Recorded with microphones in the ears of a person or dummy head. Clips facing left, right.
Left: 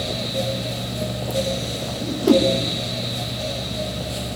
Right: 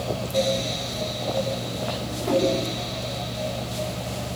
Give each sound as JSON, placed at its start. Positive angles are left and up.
{"t": 2.0, "sound": "a whoosh", "side_deg": 50, "distance_m": 1.7}